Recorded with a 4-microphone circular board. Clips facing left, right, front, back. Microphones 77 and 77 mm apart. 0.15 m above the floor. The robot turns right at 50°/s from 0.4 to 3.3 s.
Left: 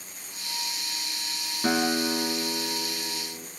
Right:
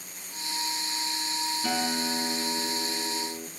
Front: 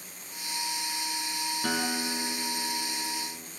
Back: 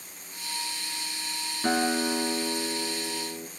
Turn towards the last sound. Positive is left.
turn(degrees=-175)